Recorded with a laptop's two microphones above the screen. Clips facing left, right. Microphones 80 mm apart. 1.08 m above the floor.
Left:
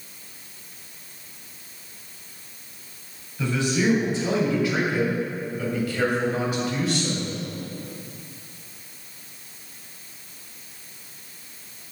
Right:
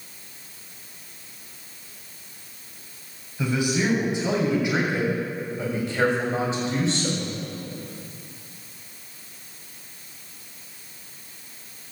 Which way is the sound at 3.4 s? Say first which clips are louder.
Even; 15° right (ahead or behind).